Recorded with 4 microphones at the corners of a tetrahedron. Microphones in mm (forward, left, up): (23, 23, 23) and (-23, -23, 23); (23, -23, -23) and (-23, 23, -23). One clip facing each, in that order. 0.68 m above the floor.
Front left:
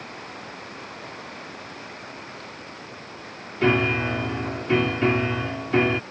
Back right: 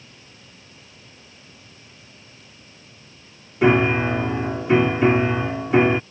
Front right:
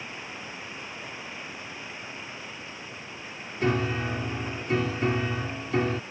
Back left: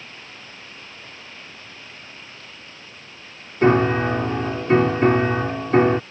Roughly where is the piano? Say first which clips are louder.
Back right 4 dB, back left 10 dB; behind left.